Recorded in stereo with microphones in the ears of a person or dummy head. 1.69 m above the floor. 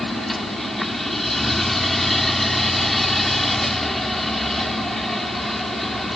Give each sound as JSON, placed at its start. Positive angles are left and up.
{"t": 0.0, "sound": "a machine running", "side_deg": -5}